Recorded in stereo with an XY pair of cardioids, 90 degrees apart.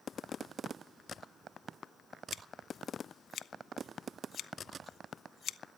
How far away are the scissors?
About 0.7 m.